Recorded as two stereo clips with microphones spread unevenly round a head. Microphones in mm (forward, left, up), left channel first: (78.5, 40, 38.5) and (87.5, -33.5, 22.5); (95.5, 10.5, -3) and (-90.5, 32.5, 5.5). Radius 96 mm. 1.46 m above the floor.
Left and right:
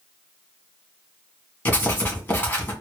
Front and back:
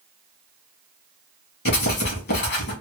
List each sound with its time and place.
1.6 s writing: 30° left, 2 m